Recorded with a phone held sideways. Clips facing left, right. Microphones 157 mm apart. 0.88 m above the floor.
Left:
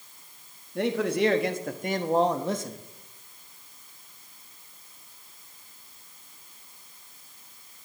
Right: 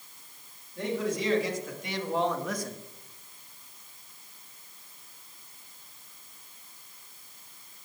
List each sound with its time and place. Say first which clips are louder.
0.8 s a man speaking: left 5 dB; 70° left (ahead or behind), 1.5 m; by 2.8 s 15° left (ahead or behind), 1.1 m